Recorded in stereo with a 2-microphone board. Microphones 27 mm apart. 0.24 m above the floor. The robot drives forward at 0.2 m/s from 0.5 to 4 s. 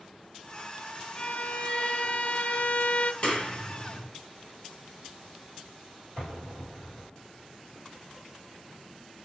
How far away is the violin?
About 0.9 m.